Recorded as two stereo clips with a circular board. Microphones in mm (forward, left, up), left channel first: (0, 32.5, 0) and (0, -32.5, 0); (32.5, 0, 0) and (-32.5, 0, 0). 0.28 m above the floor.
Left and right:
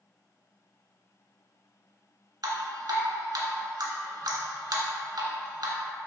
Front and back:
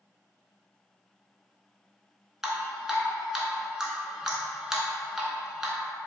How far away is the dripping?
About 0.7 m.